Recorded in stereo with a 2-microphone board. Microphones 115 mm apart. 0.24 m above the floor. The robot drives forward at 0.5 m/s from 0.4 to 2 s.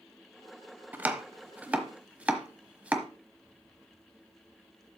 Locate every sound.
0.9 s chopping: 15° right (ahead or behind), 0.9 m; by 3.1 s 10° right (ahead or behind), 1.2 m